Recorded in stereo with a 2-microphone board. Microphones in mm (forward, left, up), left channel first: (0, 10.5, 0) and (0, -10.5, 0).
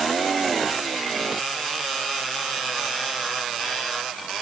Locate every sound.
Only background noise.